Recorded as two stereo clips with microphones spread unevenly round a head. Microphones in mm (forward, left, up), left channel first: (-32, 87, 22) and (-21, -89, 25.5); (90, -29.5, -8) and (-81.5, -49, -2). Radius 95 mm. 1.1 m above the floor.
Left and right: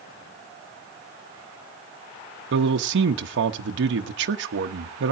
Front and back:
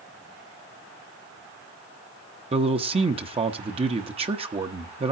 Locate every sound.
2.5 s a man speaking: 115° right, 1.1 m